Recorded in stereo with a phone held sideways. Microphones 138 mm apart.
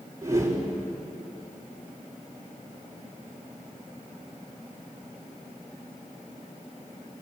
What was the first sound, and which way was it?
A whoosh, 20° right (ahead or behind).